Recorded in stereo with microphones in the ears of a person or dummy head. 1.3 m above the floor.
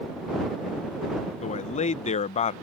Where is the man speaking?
35° left (ahead or behind).